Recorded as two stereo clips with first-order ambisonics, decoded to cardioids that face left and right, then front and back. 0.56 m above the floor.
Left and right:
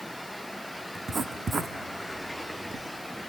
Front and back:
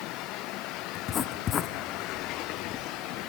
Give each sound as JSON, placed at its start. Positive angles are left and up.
{"t": 0.9, "sound": "writing", "azimuth_deg": -30, "distance_m": 1.1}